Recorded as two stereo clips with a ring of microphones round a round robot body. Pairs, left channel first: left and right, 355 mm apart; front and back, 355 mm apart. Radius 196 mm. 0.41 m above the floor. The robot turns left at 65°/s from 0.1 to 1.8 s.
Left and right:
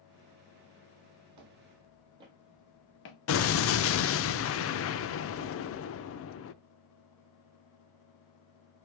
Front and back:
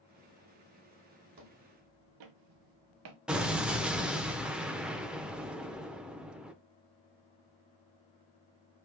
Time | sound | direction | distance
1.4 | footsteps | 125° right | 1.3 m
3.3 | an explosion | 95° left | 0.5 m